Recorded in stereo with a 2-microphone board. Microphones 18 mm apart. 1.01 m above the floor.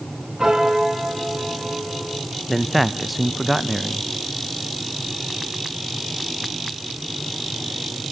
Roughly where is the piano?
Right.